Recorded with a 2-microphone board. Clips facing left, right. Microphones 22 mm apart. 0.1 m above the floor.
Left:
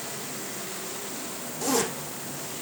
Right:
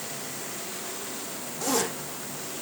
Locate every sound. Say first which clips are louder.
1.6 s a zipper: left 1 dB; centre (ahead or behind), 3 m